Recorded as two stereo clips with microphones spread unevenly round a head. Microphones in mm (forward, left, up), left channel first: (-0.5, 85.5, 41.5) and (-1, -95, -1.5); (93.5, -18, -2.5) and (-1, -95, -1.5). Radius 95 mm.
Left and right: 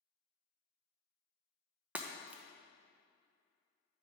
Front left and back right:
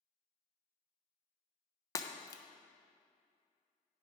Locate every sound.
1.9 s breaking glass: 10° left, 0.6 m